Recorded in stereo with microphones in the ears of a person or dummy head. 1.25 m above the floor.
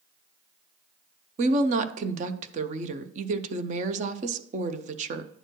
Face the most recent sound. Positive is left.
turn(degrees=-35)  # may be behind; listen again after turning